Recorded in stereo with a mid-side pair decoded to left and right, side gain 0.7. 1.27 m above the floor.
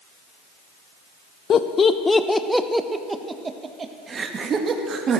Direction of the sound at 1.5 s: 40° left.